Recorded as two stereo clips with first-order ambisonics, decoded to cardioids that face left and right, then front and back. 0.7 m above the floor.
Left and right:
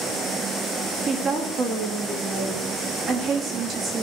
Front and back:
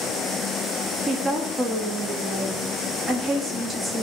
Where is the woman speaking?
125° right, 1.0 m.